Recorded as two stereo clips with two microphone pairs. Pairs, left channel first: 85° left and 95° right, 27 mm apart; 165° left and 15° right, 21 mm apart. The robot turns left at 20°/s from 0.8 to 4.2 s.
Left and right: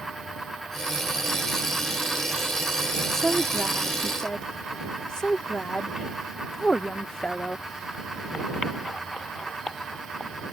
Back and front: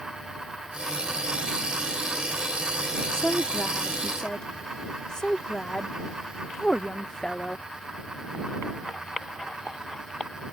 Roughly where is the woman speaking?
Behind.